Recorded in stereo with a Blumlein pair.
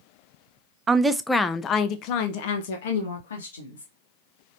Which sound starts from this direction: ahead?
A woman speaking, at 0.9 s.